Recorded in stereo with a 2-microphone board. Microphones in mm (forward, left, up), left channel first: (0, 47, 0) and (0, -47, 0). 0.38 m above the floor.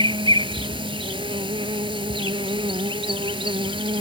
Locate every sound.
0.0 s an insect: 70° right (ahead or behind)